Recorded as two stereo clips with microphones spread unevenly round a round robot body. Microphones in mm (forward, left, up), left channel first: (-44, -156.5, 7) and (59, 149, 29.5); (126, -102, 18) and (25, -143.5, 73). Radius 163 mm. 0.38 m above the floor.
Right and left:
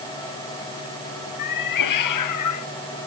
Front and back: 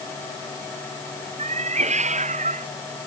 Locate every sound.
1.4 s a cat meowing: 145° right; by 2.7 s 150° right